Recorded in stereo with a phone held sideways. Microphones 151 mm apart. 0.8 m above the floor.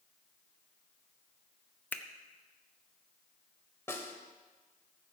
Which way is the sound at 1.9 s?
10° left (ahead or behind).